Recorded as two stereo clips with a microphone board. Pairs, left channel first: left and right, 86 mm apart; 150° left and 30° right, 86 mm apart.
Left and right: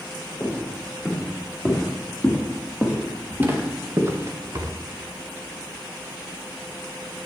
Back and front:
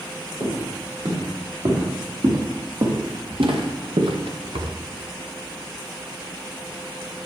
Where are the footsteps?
10° right, 4.5 m; by 4.7 s 45° right, 1.1 m.